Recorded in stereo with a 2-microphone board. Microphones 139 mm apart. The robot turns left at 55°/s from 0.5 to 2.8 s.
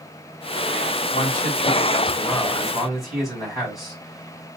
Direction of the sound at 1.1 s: 90° left.